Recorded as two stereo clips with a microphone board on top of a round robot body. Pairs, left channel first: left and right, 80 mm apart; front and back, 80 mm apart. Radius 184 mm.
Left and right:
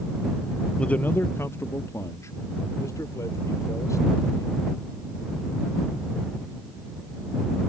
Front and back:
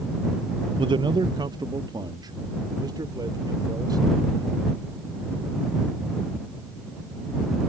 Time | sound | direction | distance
0.8 | a man speaking | 170° left | ?